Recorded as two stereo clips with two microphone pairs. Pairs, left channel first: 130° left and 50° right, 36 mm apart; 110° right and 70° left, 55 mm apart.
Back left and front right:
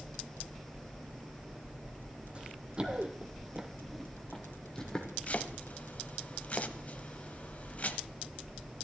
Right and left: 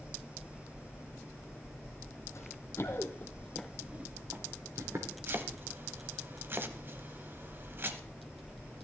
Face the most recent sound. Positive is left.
turn(degrees=100)